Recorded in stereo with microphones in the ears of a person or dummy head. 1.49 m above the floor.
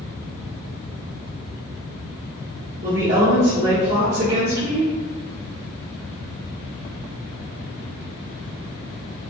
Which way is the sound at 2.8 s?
50° right (ahead or behind).